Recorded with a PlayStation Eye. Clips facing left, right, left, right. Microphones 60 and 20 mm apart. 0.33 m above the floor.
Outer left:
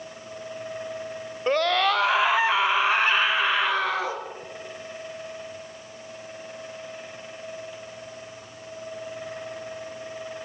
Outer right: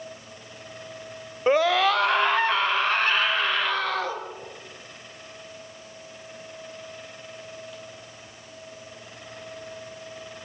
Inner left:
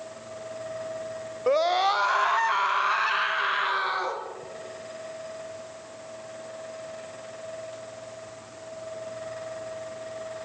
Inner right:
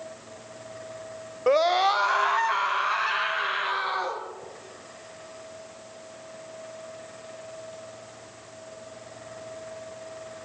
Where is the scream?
15° right (ahead or behind), 1.0 m; by 4.2 s 15° left (ahead or behind), 4.5 m.